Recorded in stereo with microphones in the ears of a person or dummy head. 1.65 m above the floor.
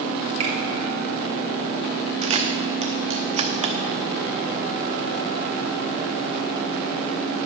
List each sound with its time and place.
0.4 s a finger snap: 25° right (ahead or behind), 2 m
2.2 s a camera shutter: 40° right (ahead or behind), 0.9 m